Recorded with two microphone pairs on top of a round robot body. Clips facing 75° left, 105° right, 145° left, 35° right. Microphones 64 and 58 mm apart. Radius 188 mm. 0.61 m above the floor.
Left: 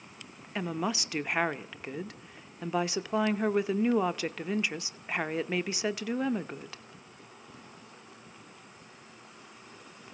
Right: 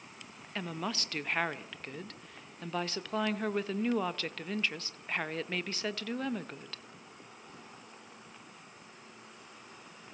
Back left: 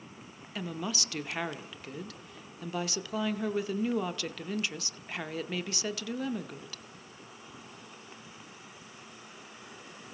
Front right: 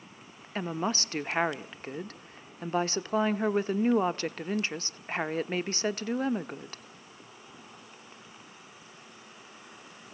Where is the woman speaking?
10° left, 1.0 m.